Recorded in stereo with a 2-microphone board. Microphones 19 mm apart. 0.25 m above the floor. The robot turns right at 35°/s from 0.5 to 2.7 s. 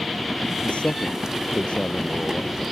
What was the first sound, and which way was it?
A man speaking, 85° left.